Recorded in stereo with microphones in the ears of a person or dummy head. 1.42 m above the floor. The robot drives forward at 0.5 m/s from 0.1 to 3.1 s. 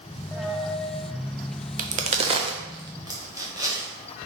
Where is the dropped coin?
5° left (ahead or behind), 0.7 m.